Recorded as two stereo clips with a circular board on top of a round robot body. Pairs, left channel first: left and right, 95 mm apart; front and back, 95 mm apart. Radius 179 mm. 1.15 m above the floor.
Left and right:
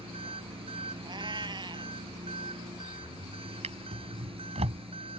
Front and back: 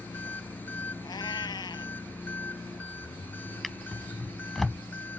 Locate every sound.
0.0 s an engine running: 70° right
1.0 s a cat meowing: 45° right
3.6 s a drawer: 90° right